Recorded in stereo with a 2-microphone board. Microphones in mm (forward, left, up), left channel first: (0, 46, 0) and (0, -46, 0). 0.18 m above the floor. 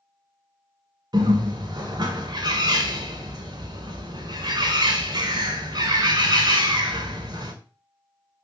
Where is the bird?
50° right (ahead or behind), 0.8 m.